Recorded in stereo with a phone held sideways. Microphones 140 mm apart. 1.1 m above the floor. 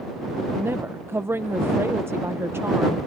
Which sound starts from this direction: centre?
A woman speaking, at 0.6 s.